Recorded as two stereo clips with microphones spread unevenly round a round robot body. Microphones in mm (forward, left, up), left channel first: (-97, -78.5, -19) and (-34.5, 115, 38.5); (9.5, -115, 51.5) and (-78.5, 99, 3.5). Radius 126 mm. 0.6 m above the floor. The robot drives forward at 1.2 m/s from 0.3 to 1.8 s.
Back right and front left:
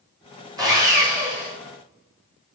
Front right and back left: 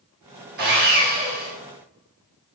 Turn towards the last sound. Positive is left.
turn(degrees=160)